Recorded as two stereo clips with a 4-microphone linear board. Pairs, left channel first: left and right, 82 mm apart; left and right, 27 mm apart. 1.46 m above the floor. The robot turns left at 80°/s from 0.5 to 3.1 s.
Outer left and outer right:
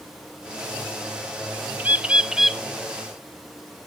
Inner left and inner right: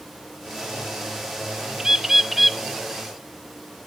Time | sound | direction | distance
1.8 | a bird | 20° right (ahead or behind) | 0.8 m